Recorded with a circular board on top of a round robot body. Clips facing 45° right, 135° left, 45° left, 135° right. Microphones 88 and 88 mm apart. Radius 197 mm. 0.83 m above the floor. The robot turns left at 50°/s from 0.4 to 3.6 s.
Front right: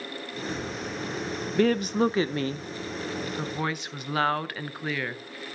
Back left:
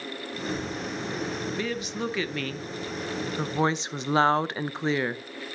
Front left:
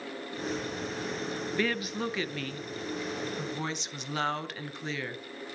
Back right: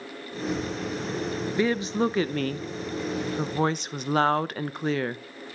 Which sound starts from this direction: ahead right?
A woman speaking, at 1.6 s.